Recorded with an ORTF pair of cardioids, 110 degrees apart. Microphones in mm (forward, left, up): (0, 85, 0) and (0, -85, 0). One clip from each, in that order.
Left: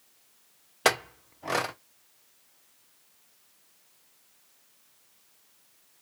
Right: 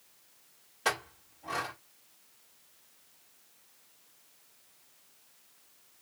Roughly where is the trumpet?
No trumpet in this recording.